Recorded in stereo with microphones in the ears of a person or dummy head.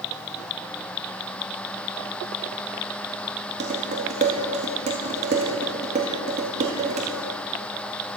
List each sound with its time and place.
3.6 s dishes clattering: 45° right (ahead or behind), 1.7 m